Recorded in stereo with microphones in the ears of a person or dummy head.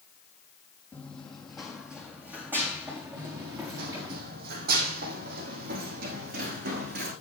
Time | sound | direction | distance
0.9 | running footsteps | 10° left (ahead or behind) | 3 m
3.2 | running footsteps | 50° right (ahead or behind) | 3 m